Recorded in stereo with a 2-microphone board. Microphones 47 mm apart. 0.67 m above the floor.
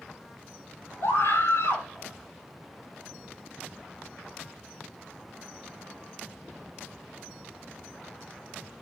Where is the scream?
75° left (ahead or behind), 4 m.